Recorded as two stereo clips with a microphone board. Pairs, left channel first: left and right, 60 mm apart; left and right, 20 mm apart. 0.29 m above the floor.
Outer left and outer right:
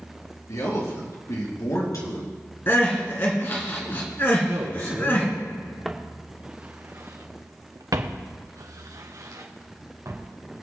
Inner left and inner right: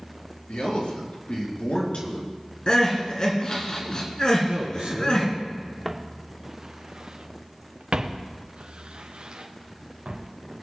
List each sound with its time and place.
0.5 s a man speaking: 70° left (ahead or behind), 5 m; by 2.3 s 55° left (ahead or behind), 3.5 m
2.7 s crying: 35° left (ahead or behind), 2 m
4.5 s a man speaking: 65° right (ahead or behind), 3.5 m
5.8 s footsteps: centre (ahead or behind), 1.6 m; by 10.3 s 60° right (ahead or behind), 3.5 m